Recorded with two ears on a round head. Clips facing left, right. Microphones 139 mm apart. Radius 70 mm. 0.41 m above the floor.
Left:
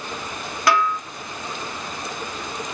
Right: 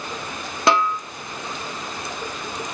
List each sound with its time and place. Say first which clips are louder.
0.7 s a snare drum: right 1 dB; 25° right (ahead or behind), 1.4 m